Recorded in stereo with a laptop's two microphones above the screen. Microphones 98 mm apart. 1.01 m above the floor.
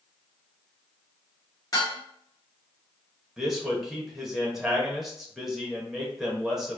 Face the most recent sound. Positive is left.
turn(degrees=-5)  # may be behind; listen again after turning